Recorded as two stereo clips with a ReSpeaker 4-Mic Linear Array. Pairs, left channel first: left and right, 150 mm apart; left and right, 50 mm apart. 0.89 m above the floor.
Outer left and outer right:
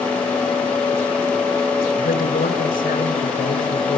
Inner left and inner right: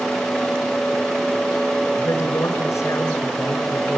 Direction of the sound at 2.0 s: 80° left.